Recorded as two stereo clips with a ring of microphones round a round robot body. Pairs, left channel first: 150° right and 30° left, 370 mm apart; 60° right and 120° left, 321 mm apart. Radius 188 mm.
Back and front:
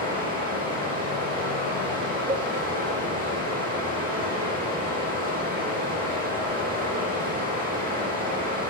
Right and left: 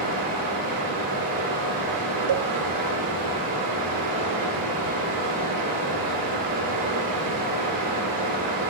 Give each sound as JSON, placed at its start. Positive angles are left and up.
{"t": 0.0, "sound": "running water", "azimuth_deg": 100, "distance_m": 3.5}
{"t": 2.3, "sound": "a cowbell", "azimuth_deg": 105, "distance_m": 0.5}